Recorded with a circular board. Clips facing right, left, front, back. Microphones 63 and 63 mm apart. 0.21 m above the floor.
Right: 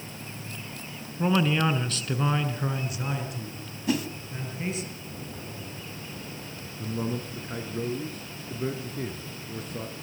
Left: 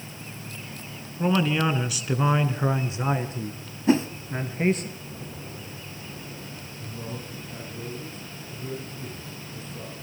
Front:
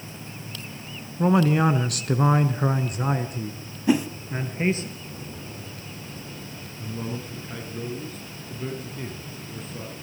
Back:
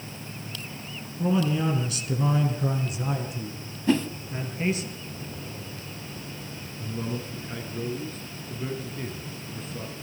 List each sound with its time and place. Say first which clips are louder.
1.2 s a man speaking: left 1 dB, front 5 dB; 5° right, 1.9 m; by 4.9 s 55° left, 3 m
3.9 s a whoosh: left 7 dB, front 2 dB; 70° left, 1.0 m
6.8 s a man speaking: right 7 dB, even; 90° right, 3 m